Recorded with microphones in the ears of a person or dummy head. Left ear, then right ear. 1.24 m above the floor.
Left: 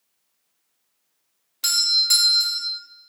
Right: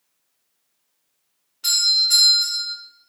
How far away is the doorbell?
About 0.6 m.